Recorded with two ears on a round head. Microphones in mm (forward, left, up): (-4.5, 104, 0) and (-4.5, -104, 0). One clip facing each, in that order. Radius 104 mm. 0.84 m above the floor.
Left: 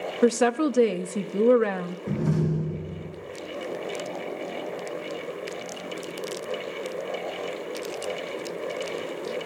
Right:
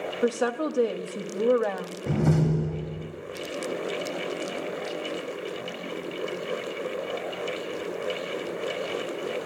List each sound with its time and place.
0.2 s a woman speaking: 35° left (ahead or behind), 0.6 m
2.1 s a door slam: 80° right, 1.8 m